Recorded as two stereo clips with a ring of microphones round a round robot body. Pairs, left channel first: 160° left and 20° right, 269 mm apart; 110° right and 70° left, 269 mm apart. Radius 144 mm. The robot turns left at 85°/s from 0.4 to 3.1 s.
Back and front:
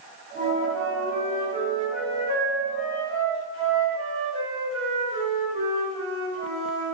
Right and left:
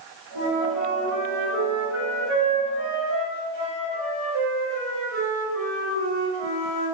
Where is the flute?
85° right, 1.4 m; by 6.9 s 45° left, 1.4 m.